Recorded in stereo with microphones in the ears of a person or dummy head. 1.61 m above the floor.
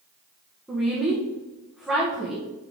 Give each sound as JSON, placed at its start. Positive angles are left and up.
{"t": 0.7, "sound": "a woman speaking", "side_deg": 0, "distance_m": 1.3}